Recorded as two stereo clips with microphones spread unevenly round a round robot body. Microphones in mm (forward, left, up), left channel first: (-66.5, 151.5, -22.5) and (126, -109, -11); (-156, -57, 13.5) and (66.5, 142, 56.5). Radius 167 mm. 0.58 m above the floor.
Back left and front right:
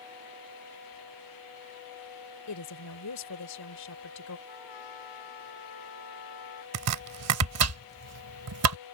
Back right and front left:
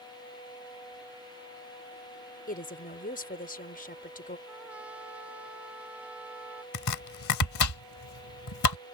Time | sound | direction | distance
2.5 | a woman speaking | 165° left | ?
4.5 | a trumpet | 125° left | ?
6.7 | chopping | 95° right | ?